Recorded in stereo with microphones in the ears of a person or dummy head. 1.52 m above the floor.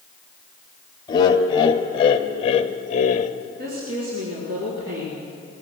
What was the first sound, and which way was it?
Laughter, 25° left (ahead or behind).